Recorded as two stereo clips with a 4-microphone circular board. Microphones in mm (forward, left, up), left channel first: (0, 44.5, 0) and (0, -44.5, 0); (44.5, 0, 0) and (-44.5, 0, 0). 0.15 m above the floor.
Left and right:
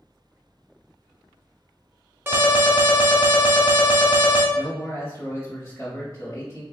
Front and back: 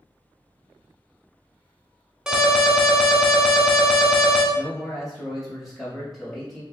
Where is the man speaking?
90° left, 1.3 m.